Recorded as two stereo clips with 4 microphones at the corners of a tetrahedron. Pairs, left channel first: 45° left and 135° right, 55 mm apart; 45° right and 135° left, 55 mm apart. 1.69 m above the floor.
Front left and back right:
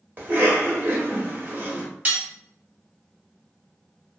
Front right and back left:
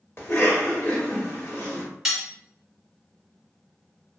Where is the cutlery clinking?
145° right, 0.9 m.